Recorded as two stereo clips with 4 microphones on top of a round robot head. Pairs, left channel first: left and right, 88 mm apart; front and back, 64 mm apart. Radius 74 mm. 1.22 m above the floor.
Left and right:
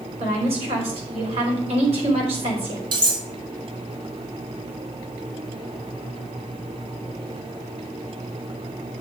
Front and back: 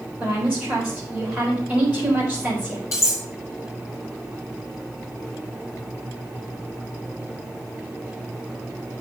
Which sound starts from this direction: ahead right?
Cutlery clinking, at 2.9 s.